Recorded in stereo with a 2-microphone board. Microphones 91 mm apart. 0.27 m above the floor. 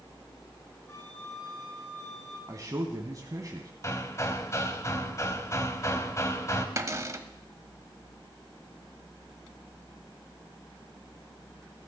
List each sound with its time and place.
0.9 s a flute: 30° left (ahead or behind), 7 m
2.5 s a man speaking: 40° right (ahead or behind), 1.9 m
3.8 s hammering: 35° left (ahead or behind), 1.5 m
6.8 s a cupboard door: 35° right (ahead or behind), 1.3 m